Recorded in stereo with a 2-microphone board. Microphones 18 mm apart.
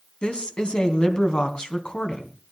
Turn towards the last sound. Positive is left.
turn(degrees=65)  # may be behind; listen again after turning